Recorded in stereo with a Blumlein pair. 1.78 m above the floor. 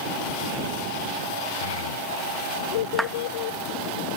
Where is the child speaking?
60° left; by 3.6 s 50° left.